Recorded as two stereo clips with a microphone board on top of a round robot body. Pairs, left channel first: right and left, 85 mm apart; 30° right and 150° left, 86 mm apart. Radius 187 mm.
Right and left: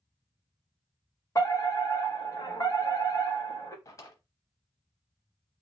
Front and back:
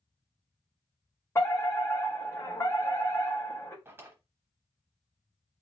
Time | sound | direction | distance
1.4 | a fire alarm | 70° right | 2.5 m
3.9 | a drawer | 145° right | 0.9 m